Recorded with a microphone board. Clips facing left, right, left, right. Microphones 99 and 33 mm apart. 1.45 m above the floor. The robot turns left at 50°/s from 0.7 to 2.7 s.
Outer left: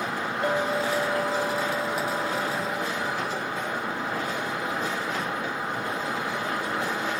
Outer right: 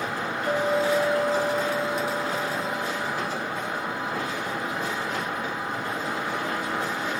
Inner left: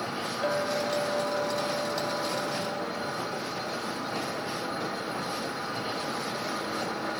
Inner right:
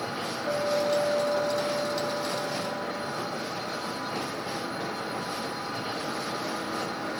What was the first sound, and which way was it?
A clink, 85° left.